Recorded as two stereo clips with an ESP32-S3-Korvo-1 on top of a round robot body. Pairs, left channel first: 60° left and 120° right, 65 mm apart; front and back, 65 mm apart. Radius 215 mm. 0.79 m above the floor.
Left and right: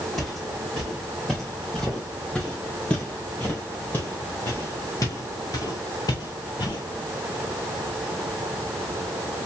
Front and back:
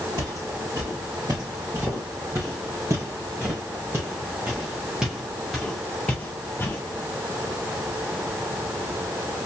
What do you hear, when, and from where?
0.2 s footsteps: 145° left, 3.5 m; by 6.8 s 60° left, 1.6 m